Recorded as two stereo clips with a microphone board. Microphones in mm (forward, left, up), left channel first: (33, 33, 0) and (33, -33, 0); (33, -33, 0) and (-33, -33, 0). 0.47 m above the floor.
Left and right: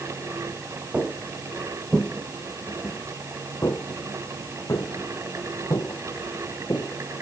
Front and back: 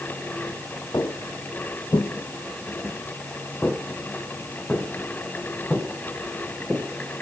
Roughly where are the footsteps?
Ahead right.